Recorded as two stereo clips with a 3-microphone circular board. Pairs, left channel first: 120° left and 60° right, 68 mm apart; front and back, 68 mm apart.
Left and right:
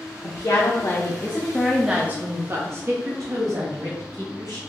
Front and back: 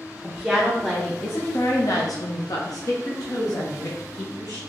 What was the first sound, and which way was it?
A woman speaking, 100° left.